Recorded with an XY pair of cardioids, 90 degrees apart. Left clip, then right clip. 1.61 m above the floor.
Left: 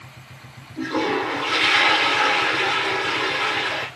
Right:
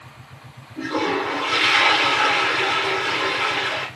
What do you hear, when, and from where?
0.8 s a toilet flushing: straight ahead, 1.8 m